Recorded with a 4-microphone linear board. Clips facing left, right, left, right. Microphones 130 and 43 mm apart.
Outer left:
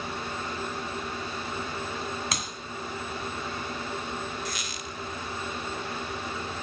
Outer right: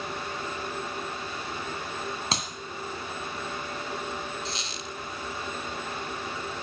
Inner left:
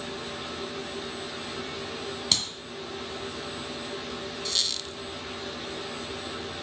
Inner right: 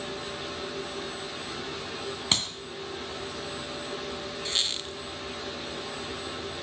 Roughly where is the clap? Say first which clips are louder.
Outer right 2 dB, inner right 1 dB; right.